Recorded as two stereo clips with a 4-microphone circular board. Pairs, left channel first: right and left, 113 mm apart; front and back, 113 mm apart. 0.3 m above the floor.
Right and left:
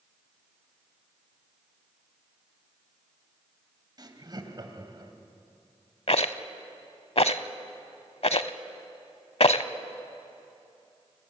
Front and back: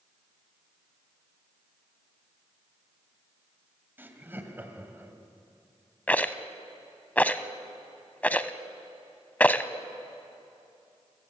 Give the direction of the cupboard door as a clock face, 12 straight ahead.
I don't hear a cupboard door.